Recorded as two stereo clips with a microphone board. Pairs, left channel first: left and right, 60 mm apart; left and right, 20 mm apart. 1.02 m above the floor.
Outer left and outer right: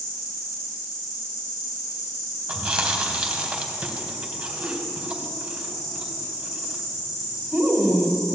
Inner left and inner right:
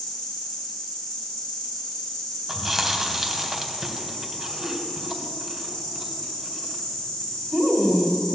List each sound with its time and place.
0.0 s an insect: 70° left (ahead or behind), 5.5 m
2.5 s chewing: 15° right (ahead or behind), 1.7 m